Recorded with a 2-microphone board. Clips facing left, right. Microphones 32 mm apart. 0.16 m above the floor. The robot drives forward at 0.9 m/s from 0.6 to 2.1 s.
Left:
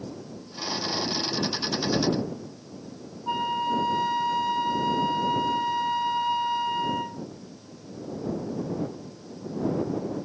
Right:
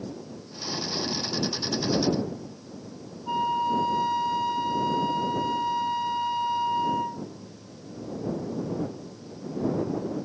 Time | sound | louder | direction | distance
3.3 | a flute | right 1 dB | 20° left (ahead or behind) | 0.5 m